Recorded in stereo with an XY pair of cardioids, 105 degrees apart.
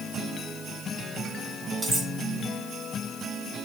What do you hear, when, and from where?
1.8 s cutlery clinking: 10° right, 2.5 m